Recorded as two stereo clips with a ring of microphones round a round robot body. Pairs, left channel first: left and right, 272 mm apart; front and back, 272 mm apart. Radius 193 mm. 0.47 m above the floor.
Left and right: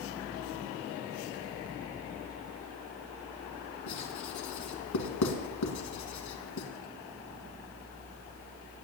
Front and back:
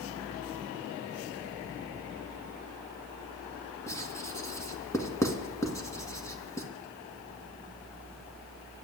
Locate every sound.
3.9 s writing: 80° left, 2 m